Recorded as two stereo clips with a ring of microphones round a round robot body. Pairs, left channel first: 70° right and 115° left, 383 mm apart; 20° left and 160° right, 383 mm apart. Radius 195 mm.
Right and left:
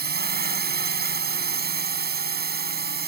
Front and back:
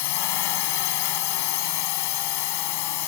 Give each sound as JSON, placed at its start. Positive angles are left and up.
{"t": 0.0, "sound": "a drone", "azimuth_deg": 45}